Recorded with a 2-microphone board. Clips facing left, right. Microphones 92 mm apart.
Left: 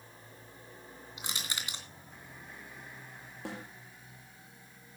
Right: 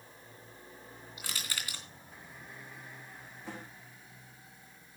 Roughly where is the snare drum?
Left.